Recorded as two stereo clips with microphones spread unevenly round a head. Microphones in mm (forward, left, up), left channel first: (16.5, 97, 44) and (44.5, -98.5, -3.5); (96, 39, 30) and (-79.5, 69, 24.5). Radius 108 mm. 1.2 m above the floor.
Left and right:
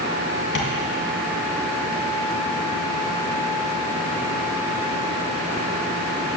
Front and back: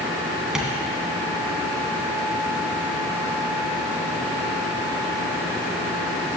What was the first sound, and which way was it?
Tapping, 85° left.